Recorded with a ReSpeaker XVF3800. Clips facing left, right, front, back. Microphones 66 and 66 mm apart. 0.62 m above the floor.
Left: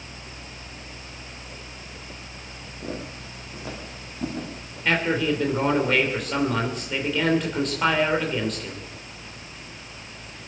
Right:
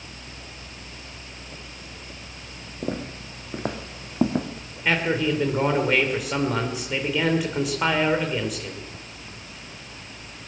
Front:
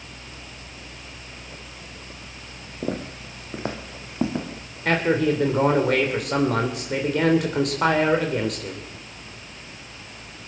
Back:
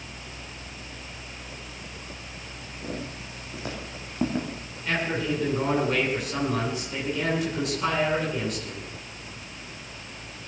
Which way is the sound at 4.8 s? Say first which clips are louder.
Even, front 7 dB; 10° right.